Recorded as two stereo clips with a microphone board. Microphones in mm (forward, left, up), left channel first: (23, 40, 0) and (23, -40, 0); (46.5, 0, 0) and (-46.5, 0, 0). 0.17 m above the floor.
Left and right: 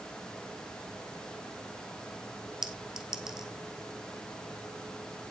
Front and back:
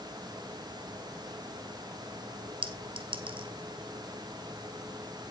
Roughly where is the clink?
Behind.